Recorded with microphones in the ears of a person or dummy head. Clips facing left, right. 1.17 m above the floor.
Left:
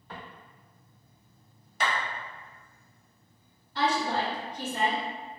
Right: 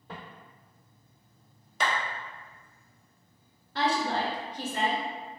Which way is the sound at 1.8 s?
70° right (ahead or behind).